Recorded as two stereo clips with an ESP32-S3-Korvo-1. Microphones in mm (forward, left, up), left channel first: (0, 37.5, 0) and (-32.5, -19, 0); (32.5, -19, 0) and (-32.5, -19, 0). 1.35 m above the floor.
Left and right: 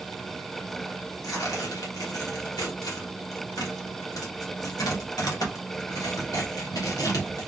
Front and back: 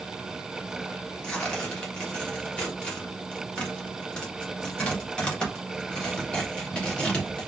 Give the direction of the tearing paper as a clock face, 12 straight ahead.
10 o'clock.